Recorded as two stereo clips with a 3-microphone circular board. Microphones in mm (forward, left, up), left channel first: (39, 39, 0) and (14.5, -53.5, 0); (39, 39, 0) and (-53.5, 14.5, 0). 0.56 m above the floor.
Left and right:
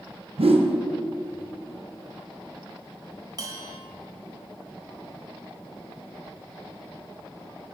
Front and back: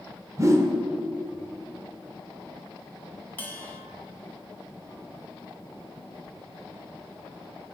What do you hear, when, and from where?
0.4 s a whoosh: 110° right, 0.5 m
3.4 s a bell: 55° right, 0.6 m